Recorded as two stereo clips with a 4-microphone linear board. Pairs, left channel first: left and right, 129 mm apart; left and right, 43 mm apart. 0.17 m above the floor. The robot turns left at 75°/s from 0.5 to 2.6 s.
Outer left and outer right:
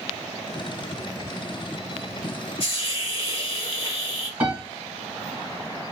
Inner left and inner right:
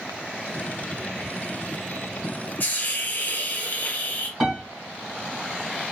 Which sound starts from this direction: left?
A hiss, at 2.6 s.